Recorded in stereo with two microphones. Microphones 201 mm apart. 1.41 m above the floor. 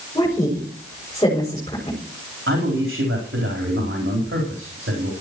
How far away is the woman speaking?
About 6.5 m.